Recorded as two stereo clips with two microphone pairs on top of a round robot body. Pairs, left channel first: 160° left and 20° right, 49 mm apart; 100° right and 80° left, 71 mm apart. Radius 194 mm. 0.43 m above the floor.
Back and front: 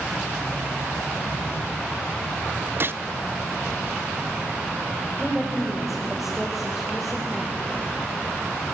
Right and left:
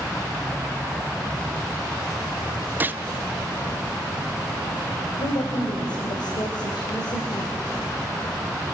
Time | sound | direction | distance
2.8 | a gunshot | 20° left | 0.6 m
5.2 | a woman speaking | 110° right | 3 m